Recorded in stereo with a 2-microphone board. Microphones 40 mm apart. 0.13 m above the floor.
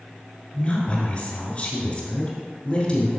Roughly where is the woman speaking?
Left.